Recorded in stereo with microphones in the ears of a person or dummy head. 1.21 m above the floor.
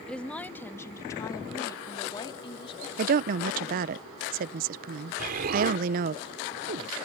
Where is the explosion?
50° right (ahead or behind).